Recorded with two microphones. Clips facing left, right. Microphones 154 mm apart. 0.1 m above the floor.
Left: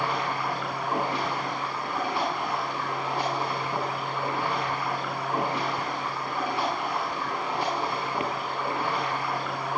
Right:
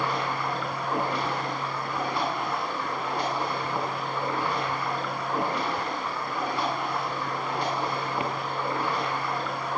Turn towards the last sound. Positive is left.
turn(degrees=5)  # may be behind; listen again after turning